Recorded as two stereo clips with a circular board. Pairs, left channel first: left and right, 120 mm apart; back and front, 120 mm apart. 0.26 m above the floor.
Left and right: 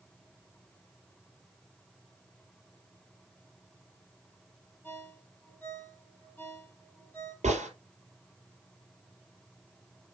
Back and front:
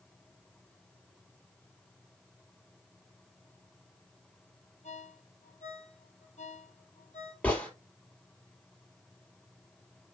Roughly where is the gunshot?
Right.